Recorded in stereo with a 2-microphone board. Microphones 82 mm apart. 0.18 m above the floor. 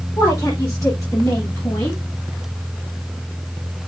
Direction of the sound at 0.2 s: 40° left (ahead or behind).